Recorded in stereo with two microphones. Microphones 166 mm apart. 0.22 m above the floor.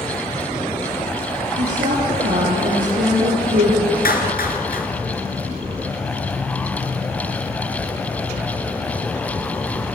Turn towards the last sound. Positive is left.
turn(degrees=65)  # may be behind; listen again after turning